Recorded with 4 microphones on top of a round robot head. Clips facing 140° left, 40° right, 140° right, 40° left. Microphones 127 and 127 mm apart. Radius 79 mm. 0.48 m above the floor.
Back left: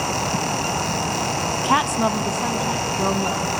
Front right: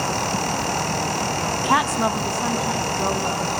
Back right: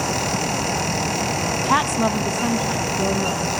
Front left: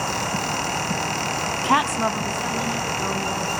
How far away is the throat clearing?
I don't hear throat clearing.